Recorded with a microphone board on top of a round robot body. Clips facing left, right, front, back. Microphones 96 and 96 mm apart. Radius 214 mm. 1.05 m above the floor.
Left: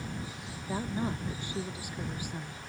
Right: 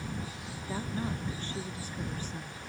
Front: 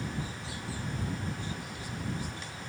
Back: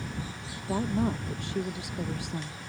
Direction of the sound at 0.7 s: 165° left.